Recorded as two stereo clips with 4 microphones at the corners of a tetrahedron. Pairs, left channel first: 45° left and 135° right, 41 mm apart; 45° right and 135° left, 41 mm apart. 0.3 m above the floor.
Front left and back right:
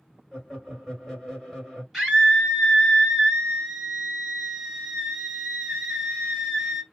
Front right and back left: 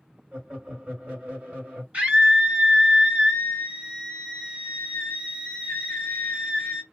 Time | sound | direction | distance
0.3 | laughter | 130° left | 1.6 m
1.9 | a scream | 130° left | 1.7 m